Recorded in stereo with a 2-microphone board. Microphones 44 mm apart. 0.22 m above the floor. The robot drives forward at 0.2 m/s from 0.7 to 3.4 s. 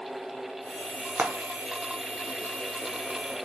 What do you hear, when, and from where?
1.2 s frying: 55° right (ahead or behind), 0.6 m; by 2.9 s 60° right (ahead or behind), 0.6 m